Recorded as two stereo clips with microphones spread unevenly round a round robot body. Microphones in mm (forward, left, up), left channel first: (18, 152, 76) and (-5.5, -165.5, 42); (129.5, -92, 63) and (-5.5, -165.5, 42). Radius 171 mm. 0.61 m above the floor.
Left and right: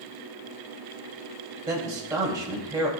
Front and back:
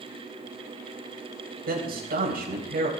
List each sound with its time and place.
1.7 s a man speaking: 175° right, 3 m